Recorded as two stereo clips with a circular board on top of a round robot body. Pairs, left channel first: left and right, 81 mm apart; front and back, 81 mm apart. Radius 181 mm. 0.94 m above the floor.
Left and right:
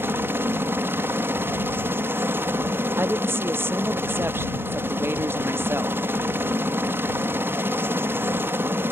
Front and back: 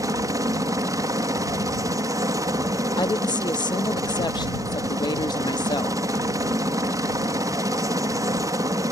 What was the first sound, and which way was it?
A helicopter, 145° right.